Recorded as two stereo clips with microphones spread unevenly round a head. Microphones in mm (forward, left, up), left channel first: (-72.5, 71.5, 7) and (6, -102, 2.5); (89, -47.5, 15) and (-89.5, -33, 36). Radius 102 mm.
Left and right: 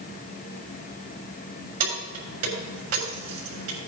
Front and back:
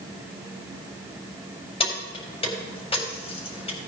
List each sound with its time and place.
1.8 s keys jangling: 65° right, 4 m